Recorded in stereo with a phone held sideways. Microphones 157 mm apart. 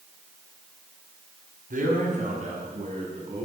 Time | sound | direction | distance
1.7 | a man speaking | 55° right (ahead or behind) | 5.5 m